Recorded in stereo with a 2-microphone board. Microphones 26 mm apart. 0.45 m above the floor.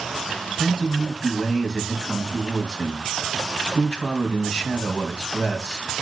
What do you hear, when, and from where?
0.6 s a man speaking: 30° left (ahead or behind), 3 m